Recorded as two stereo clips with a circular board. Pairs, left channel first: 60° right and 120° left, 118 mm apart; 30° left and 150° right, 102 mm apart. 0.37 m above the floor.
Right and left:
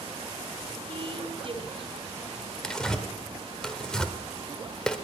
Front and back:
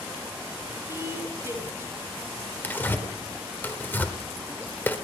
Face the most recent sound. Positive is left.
turn(degrees=10)